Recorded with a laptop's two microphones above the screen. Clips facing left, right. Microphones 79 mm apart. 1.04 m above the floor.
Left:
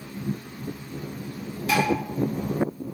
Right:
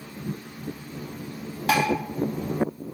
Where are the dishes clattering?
75° right (ahead or behind), 1.4 m.